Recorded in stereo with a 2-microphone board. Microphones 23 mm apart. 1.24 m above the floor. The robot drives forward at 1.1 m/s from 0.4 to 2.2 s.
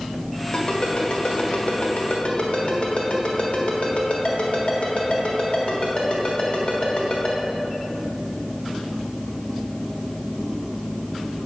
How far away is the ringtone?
About 1.9 m.